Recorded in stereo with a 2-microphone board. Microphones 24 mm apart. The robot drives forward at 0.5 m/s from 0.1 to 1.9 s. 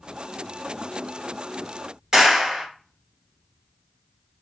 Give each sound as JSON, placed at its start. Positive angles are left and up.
{"t": 2.1, "sound": "a clap", "side_deg": -15, "distance_m": 1.5}